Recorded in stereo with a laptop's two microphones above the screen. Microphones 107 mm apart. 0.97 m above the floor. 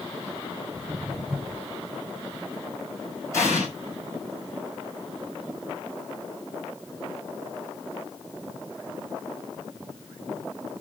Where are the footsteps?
35° right (ahead or behind), 1.2 m.